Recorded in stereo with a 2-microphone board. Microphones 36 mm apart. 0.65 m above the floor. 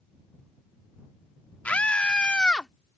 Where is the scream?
45° left (ahead or behind); by 2.7 s 20° left (ahead or behind).